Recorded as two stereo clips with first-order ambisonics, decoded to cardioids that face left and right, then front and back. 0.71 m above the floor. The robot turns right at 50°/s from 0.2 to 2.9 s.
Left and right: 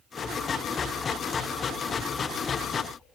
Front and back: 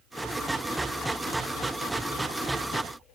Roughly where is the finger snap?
No finger snap in this recording.